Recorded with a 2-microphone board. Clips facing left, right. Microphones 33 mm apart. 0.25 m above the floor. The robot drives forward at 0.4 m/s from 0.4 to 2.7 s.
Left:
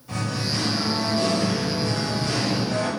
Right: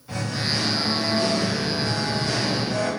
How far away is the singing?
About 1.7 m.